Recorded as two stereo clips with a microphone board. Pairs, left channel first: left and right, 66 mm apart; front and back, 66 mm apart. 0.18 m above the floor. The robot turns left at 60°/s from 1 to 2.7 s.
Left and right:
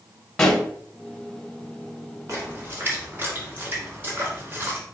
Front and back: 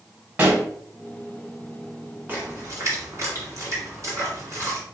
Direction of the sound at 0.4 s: 155° left.